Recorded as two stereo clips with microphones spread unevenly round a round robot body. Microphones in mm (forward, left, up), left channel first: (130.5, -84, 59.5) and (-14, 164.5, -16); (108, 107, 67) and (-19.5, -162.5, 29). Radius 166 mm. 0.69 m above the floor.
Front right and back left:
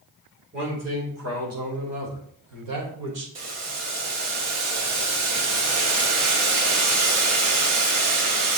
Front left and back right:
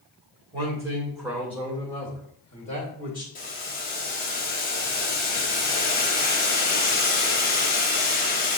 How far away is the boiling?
About 1.3 m.